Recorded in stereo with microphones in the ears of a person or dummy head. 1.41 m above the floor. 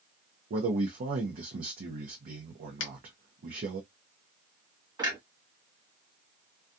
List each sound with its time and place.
0.5 s a man speaking: 45° right (ahead or behind), 0.7 m
2.8 s a finger snap: 45° left (ahead or behind), 0.7 m
5.0 s a clunk: 20° right (ahead or behind), 1.0 m